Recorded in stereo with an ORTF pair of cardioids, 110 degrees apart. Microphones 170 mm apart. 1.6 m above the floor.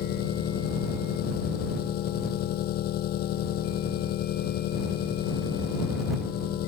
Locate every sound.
0.0 s an engine running: 65° left